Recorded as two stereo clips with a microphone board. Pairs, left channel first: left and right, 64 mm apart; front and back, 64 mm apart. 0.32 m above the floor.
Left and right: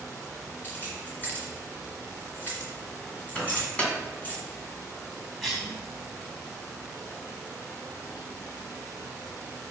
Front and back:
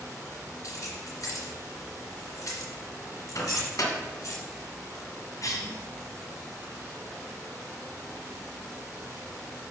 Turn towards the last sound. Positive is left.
turn(degrees=5)